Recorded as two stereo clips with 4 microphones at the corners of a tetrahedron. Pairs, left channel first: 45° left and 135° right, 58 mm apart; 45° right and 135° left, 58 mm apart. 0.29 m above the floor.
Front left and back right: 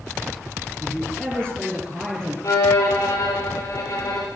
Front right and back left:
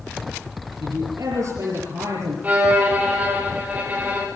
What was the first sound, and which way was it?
A man speaking, 120° left.